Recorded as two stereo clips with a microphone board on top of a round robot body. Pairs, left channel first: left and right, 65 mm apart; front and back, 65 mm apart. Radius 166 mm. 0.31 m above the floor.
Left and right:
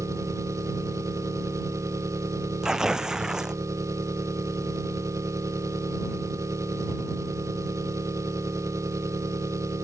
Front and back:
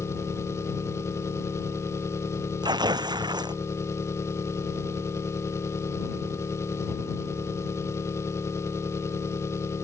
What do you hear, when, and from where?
0.0 s an engine running: 50° right
2.6 s tearing paper: 170° right